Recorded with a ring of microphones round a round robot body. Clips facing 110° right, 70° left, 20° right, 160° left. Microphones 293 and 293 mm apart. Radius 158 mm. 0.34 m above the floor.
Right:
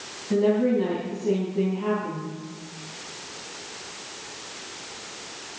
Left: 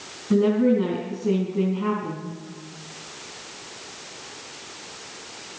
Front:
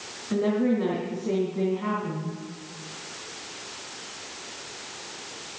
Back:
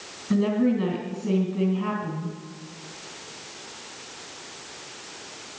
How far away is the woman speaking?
About 4 m.